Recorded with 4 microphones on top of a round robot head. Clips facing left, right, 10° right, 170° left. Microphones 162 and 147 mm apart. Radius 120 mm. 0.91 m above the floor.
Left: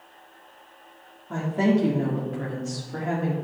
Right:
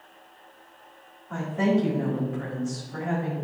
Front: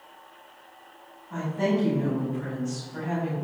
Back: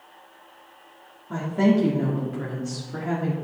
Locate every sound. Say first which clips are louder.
1.3 s a woman speaking: left 2 dB, back 5 dB; 145° left, 2 m